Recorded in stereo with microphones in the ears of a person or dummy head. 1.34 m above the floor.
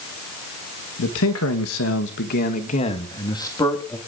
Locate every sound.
1.0 s a man speaking: 70° left (ahead or behind), 1.5 m; by 4.0 s 15° left (ahead or behind), 2.5 m